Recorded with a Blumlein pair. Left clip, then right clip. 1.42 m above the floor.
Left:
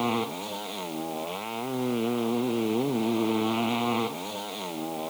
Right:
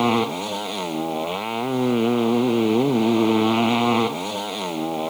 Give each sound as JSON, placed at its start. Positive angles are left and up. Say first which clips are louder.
{"t": 0.0, "sound": "a motorcycle", "louder": "right 8 dB", "azimuth_deg": -65}